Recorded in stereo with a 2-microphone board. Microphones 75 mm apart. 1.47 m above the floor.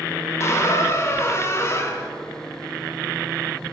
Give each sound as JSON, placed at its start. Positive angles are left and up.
{"t": 0.4, "sound": "a squeak", "side_deg": 35, "distance_m": 0.6}